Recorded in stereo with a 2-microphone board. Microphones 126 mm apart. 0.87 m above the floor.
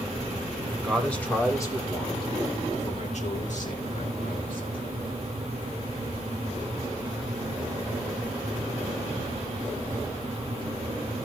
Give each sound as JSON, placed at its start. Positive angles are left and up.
{"t": 0.8, "sound": "a man speaking", "side_deg": 0, "distance_m": 2.5}